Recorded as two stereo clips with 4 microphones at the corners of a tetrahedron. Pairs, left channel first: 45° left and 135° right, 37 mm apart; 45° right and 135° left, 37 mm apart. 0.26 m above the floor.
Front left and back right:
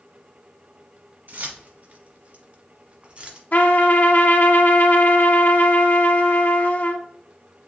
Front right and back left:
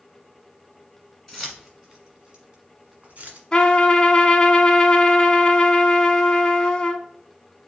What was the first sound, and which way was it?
Keys jangling, 140° right.